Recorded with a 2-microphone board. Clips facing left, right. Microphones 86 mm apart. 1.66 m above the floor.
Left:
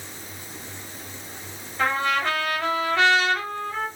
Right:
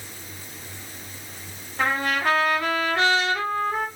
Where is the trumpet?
70° right (ahead or behind), 3 m.